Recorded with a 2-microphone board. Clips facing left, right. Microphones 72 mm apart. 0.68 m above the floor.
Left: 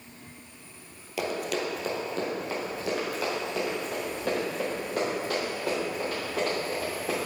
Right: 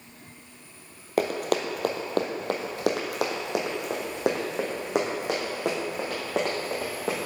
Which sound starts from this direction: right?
Running footsteps, at 1.2 s.